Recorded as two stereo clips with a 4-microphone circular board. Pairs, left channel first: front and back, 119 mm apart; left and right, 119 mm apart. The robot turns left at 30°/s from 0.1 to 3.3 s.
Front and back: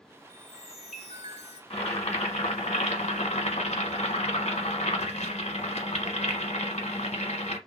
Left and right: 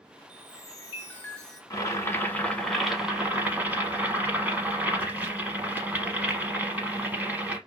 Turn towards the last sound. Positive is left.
turn(degrees=-15)